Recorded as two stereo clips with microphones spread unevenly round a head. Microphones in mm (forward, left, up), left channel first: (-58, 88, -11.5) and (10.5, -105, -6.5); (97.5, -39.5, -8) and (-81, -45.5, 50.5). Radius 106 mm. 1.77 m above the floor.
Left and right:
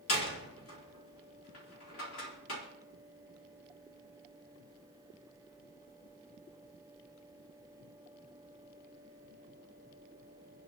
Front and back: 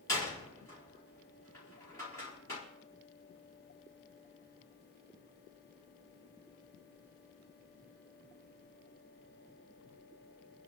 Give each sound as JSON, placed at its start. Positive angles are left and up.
{"t": 0.1, "sound": "a door slam", "azimuth_deg": 80, "distance_m": 4.0}